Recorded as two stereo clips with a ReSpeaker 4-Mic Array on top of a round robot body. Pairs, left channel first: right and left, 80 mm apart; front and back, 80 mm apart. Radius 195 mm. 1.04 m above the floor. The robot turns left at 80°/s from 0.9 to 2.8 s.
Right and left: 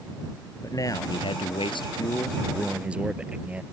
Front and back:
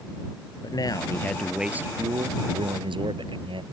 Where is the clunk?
I don't hear a clunk.